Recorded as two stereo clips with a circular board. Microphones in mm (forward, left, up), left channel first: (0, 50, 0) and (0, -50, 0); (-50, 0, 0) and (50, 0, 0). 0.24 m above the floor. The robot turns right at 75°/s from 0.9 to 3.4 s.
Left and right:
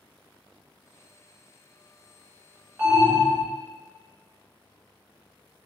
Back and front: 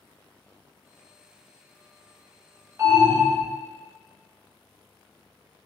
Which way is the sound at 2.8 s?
30° right.